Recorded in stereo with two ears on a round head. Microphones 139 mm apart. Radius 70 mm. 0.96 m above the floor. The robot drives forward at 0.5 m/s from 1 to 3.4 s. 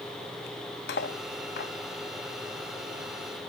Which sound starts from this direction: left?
Cutlery clinking, at 0.9 s.